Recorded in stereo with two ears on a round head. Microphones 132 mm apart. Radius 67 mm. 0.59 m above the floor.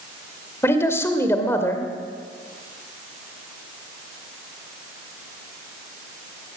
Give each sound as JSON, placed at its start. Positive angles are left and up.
{"t": 0.6, "sound": "a man speaking", "side_deg": 15, "distance_m": 2.0}